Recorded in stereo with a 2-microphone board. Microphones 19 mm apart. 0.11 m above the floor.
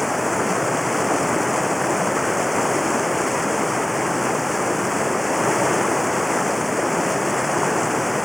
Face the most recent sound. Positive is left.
turn(degrees=-5)  # may be behind; listen again after turning